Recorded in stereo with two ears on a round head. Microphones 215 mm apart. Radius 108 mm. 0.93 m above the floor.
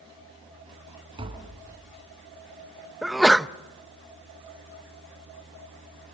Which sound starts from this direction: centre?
A sneeze, at 3.0 s.